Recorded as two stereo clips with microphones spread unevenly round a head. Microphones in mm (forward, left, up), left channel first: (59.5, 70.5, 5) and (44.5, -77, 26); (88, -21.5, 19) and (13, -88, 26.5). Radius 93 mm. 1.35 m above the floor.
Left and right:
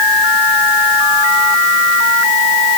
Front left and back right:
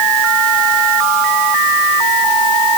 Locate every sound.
Only background noise.